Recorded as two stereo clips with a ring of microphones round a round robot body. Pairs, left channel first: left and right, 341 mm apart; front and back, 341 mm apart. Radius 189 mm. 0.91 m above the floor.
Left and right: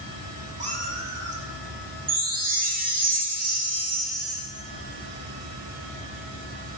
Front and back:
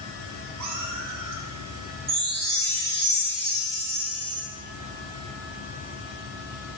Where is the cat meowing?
155° right, 1.2 m.